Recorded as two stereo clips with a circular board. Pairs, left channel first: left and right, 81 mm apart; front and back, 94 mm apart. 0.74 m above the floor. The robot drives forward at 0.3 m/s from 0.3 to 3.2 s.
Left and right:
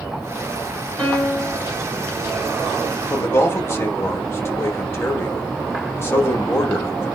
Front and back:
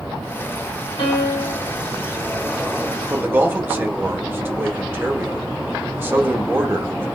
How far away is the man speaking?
About 1.1 m.